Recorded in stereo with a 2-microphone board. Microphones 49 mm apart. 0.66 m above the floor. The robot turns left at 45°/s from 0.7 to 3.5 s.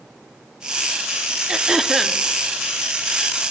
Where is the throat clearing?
155° right, 1.3 m; by 2.2 s 175° left, 1.3 m.